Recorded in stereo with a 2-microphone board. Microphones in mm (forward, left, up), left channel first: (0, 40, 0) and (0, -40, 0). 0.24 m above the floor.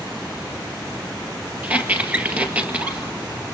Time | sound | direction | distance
1.6 | a squeak | 20° right (ahead or behind) | 2 m